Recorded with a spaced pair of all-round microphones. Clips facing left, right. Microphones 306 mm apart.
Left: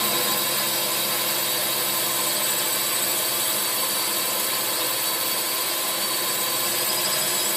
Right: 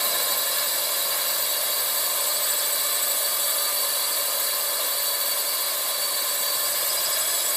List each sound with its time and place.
0.0 s a drone: 75° left (ahead or behind)